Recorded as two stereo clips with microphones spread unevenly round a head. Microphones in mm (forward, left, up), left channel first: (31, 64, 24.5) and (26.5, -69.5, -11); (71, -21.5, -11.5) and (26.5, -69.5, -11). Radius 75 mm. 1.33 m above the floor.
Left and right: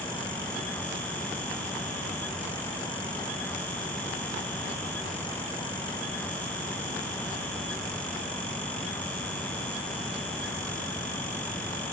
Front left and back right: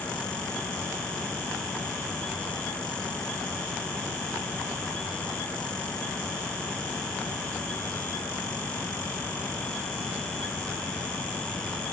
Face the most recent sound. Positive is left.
No sound to turn to.